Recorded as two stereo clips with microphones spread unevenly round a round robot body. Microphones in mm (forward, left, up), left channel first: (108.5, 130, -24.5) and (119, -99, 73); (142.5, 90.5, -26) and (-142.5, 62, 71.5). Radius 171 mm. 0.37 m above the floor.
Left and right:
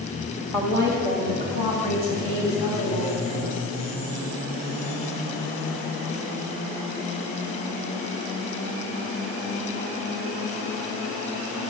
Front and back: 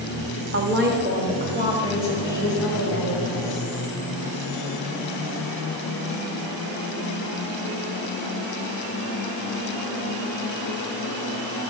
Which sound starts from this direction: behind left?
A woman speaking, at 0.5 s.